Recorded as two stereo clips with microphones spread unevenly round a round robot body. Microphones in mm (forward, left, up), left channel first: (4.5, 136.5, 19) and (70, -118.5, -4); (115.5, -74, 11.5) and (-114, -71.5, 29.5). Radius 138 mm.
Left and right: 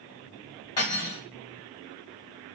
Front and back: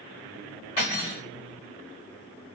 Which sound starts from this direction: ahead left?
Cutlery clinking, at 0.8 s.